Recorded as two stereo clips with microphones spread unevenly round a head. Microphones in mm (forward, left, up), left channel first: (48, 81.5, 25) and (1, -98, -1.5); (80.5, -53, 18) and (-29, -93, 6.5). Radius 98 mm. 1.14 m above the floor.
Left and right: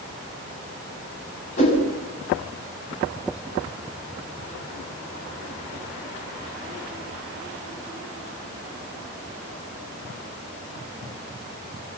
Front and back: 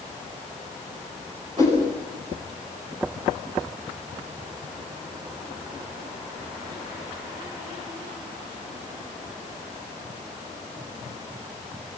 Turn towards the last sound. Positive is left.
turn(degrees=130)